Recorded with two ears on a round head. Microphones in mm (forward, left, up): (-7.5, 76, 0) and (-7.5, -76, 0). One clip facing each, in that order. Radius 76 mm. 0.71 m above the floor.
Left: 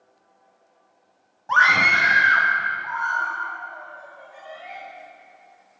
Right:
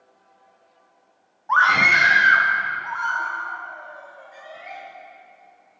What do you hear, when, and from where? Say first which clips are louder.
1.5 s a scream: right 1 dB; 35° left (ahead or behind), 0.6 m; by 4.8 s 70° right (ahead or behind), 3.5 m